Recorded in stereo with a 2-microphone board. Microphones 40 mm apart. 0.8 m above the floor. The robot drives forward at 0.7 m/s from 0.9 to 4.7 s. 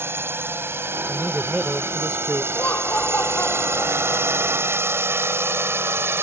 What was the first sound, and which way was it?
A drone, 65° right (ahead or behind).